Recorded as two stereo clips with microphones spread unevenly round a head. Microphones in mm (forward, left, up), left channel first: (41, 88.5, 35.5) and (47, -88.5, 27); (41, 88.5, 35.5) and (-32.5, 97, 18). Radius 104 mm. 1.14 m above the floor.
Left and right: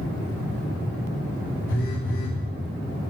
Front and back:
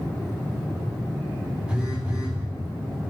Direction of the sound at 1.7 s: 90° left.